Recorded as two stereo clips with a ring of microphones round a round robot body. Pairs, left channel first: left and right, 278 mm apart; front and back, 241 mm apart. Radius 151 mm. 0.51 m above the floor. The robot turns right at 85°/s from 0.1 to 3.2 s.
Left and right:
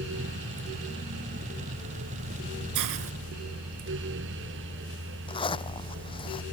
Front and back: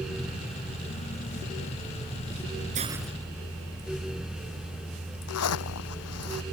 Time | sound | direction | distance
2.8 | a hiss | 115° right | ?
5.3 | a zipper | 15° left | ?